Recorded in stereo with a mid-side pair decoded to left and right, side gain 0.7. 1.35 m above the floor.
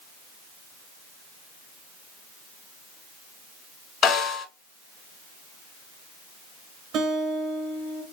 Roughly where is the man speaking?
No man speaking in this recording.